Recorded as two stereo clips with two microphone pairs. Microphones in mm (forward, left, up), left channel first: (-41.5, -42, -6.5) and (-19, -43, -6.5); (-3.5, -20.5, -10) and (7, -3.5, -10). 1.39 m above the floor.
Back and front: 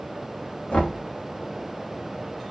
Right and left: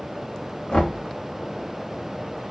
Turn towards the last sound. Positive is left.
turn(degrees=-145)